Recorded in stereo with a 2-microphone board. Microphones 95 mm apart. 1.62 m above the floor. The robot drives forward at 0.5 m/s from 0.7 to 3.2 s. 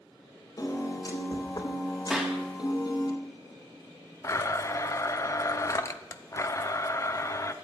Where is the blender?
30° left (ahead or behind), 0.9 m.